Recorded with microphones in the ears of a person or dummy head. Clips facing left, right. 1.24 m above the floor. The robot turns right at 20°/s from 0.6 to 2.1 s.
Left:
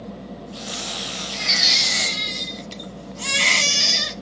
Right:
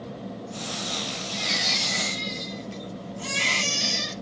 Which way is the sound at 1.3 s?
65° left (ahead or behind).